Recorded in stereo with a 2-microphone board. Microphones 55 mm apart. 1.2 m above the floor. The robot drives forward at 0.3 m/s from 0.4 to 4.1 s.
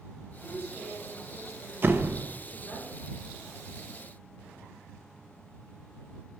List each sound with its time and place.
0.4 s a woman speaking: 15° right (ahead or behind), 4.5 m
1.8 s a door slam: 40° right (ahead or behind), 0.5 m; by 2.2 s 35° right (ahead or behind), 0.6 m